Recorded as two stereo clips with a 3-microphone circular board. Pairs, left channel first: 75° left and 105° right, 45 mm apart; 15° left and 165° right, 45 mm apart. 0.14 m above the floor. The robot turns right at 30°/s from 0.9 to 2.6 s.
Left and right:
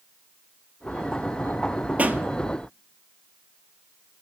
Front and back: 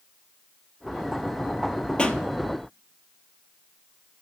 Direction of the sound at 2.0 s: 50° right.